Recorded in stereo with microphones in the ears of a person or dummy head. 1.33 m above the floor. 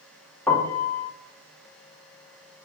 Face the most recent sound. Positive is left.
turn(degrees=10)  # may be behind; listen again after turning